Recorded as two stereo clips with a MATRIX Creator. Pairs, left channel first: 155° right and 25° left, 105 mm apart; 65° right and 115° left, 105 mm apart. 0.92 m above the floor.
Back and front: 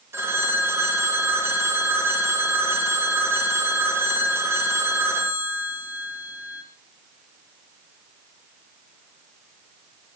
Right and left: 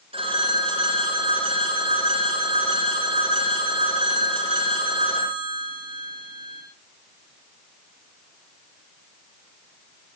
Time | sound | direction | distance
0.1 | a phone ringing | 90° left | 6.5 m